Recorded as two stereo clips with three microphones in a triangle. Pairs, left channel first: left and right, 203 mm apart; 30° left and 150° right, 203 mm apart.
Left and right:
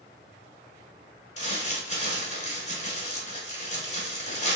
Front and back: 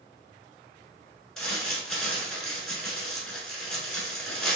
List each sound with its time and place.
1.4 s crumpling: 115° left, 1.1 m